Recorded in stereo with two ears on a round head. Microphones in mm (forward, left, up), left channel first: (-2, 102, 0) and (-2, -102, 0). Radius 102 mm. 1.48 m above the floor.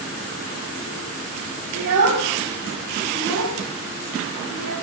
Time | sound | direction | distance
1.8 | a child speaking | 85° right | 3.5 m